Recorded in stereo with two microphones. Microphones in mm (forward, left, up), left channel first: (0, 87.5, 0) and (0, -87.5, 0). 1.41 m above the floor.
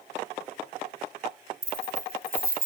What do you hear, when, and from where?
1.6 s keys jangling: 55° right (ahead or behind), 2.5 m; by 2.6 s 60° right (ahead or behind), 1.4 m